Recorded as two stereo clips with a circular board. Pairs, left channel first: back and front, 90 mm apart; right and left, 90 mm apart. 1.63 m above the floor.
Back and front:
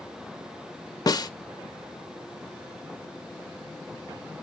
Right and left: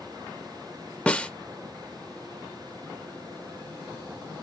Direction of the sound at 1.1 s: 160° right.